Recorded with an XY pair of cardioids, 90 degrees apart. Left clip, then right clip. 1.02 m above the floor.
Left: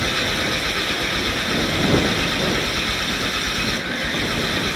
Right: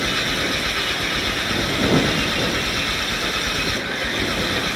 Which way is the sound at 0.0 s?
5° right.